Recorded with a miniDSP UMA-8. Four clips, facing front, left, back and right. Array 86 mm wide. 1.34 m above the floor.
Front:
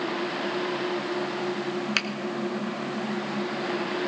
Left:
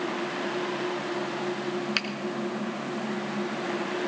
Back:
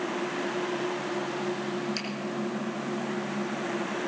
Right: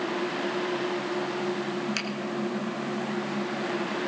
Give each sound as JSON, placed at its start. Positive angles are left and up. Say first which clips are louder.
{"t": 2.0, "sound": "a finger snap", "louder": "left 1 dB, front 5 dB", "azimuth_deg": 20, "distance_m": 1.1}